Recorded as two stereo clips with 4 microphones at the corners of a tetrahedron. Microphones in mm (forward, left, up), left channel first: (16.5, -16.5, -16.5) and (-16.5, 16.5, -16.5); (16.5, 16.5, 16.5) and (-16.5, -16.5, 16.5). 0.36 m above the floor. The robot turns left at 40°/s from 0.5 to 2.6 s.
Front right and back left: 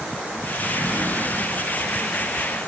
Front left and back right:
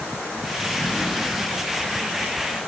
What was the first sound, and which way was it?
A sliding door, 125° left.